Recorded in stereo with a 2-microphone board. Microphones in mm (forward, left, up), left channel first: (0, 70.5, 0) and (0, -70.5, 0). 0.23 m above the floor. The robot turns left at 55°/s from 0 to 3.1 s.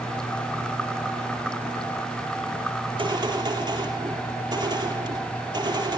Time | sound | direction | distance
2.8 | a gunshot | 45° right (ahead or behind) | 7.5 m